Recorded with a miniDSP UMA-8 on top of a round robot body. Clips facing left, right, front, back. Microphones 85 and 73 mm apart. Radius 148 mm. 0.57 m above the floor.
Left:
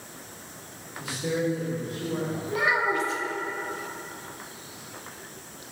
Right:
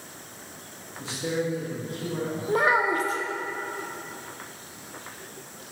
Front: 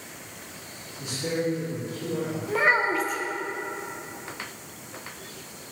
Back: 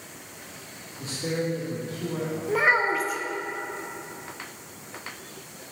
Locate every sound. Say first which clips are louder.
1.0 s a man speaking: left 1 dB, front 1 dB; 135° right, 1.4 m; by 2.4 s 165° left, 2 m
2.5 s a child speaking: right 3 dB, even; 95° right, 0.7 m